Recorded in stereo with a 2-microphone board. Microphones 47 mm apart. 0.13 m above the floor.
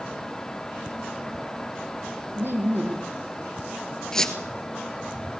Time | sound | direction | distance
2.4 | laughter | 55° right (ahead or behind) | 4 m
4.1 | a squeak | 10° left (ahead or behind) | 1.8 m